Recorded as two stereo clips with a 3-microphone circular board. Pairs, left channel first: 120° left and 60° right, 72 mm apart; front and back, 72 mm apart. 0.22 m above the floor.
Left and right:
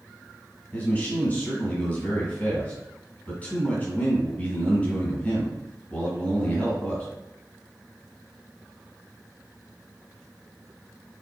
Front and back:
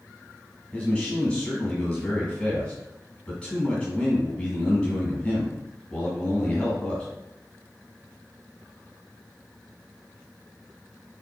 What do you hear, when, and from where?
0.7 s a man speaking: 65° left, 1.5 m